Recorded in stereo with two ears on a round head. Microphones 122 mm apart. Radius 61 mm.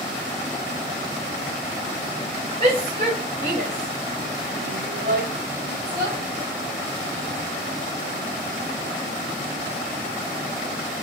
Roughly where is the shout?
Right.